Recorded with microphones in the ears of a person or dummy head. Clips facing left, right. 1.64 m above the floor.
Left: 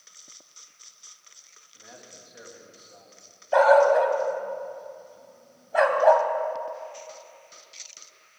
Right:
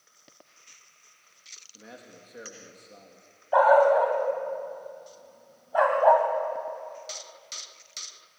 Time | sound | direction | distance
1.7 | a man speaking | 35° right (ahead or behind) | 2.5 m
3.5 | a dog barking | 30° left (ahead or behind) | 3 m